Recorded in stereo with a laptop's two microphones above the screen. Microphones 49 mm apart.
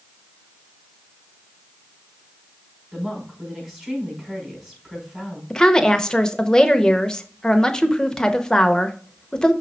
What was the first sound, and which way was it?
A woman speaking, 10° right (ahead or behind).